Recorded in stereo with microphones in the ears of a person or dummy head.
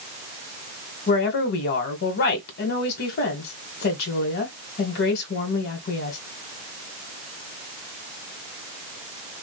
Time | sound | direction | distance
1.1 | a woman speaking | 50° left (ahead or behind) | 1.5 m